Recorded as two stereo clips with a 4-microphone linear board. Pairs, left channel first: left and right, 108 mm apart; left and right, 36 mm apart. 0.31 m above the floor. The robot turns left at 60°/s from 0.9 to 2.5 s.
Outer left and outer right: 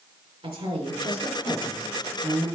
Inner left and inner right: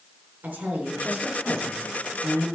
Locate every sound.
0.4 s a woman speaking: 100° right, 3.5 m; by 2.5 s 165° left, 3.5 m